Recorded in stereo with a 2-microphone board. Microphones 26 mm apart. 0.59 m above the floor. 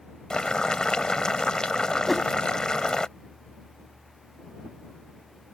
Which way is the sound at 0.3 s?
30° left (ahead or behind).